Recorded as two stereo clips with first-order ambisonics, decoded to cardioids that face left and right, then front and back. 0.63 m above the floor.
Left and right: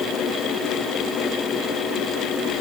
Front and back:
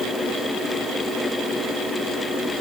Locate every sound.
Only background noise.